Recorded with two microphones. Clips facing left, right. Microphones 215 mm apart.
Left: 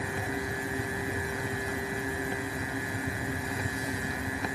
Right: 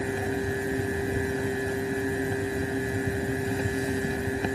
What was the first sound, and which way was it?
Only background noise.